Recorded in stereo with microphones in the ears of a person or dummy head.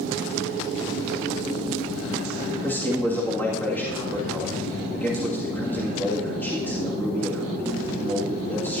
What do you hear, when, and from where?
2.6 s a man speaking: 5° left (ahead or behind), 1.9 m